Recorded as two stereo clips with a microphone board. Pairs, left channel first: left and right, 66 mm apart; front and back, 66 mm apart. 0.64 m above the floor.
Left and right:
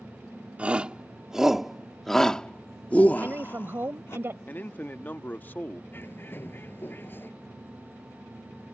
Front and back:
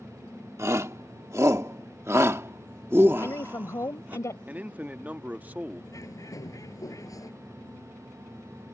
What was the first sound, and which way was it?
A shout, 155° right.